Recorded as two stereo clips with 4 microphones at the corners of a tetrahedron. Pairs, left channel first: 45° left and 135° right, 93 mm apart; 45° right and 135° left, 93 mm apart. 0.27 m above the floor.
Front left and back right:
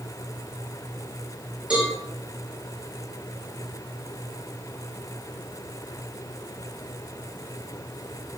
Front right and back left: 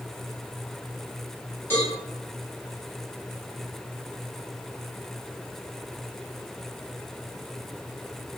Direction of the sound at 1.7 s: 70° right.